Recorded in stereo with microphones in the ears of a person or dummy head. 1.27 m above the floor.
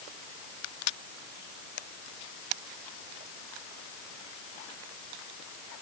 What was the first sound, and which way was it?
Only background noise.